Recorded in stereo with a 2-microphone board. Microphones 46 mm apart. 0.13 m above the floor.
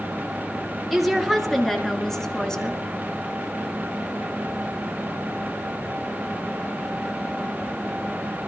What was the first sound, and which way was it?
A woman speaking, centre (ahead or behind).